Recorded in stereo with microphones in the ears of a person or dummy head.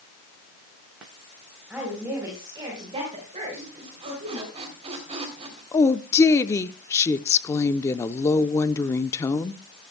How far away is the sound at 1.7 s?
About 4 m.